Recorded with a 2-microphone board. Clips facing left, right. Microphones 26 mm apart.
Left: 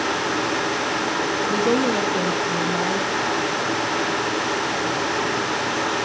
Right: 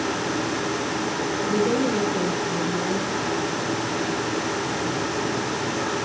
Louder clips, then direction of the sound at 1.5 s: Left 1 dB; 45° left (ahead or behind).